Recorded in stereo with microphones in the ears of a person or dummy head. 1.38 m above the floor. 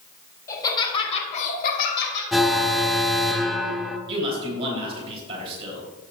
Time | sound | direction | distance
0.5 | laughter | 20° left (ahead or behind) | 3 m
2.3 | an alarm | centre (ahead or behind) | 0.6 m
4.1 | a man speaking | 30° right (ahead or behind) | 3.5 m